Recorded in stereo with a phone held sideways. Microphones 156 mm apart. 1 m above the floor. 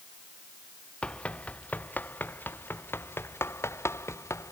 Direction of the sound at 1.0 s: 5° left (ahead or behind).